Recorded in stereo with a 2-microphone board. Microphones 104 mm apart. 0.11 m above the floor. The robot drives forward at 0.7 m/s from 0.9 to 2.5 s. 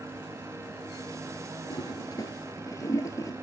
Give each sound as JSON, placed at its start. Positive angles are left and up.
{"t": 1.7, "sound": "a toilet flushing", "side_deg": 45, "distance_m": 0.9}